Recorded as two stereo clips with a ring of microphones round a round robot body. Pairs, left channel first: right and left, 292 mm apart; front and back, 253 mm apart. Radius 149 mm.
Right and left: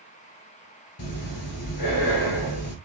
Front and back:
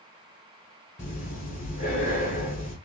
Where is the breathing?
70° right, 1.6 m.